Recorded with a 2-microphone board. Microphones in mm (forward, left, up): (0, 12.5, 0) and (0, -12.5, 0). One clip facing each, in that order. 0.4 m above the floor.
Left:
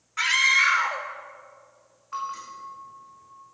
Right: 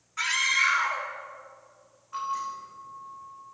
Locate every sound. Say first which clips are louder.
0.2 s a scream: left 4 dB; 20° left (ahead or behind), 0.8 m
2.1 s a bell: right 2 dB; 80° left, 6.5 m